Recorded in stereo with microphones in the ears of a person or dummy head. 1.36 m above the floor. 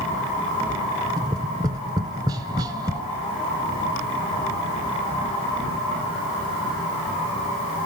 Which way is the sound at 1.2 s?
20° right (ahead or behind).